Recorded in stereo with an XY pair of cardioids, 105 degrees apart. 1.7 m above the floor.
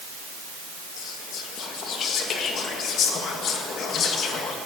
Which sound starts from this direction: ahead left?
Whispering, at 1.0 s.